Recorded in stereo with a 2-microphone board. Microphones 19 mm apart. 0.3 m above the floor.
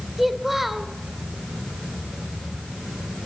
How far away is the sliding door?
I don't hear a sliding door.